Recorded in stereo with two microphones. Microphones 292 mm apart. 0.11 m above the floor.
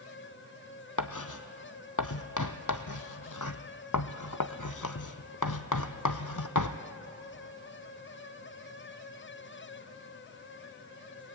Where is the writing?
80° left, 0.9 m.